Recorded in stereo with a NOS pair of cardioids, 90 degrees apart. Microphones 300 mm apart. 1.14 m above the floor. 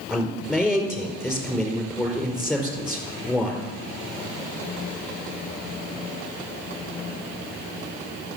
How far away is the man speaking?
About 4.5 m.